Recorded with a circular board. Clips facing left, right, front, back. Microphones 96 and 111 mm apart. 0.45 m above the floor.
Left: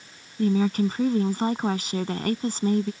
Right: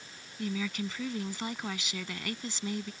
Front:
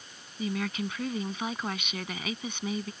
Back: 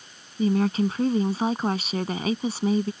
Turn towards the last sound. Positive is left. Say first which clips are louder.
# left 12 dB, back 10 dB
turn(degrees=130)